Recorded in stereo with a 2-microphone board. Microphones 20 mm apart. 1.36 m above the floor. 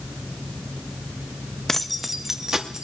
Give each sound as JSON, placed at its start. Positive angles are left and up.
{"t": 1.7, "sound": "keys jangling", "side_deg": 10, "distance_m": 0.6}